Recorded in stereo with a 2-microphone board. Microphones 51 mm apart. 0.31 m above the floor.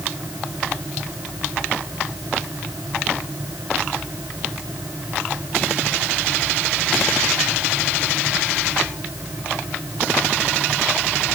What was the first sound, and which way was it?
Only background noise.